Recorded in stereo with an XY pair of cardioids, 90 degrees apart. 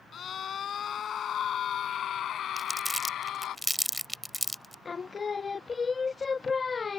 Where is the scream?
60° left; by 3.6 s 75° left.